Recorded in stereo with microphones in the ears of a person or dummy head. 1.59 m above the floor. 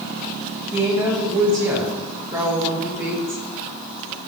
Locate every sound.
0.7 s a woman speaking: 15° right (ahead or behind), 1.6 m